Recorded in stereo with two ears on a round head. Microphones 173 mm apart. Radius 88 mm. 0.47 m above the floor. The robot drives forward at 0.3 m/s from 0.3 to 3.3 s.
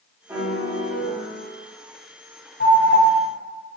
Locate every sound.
0.3 s a piano: 15° right (ahead or behind), 1.6 m
2.6 s an alarm: 55° left (ahead or behind), 1.4 m; by 3.0 s 60° left (ahead or behind), 1.3 m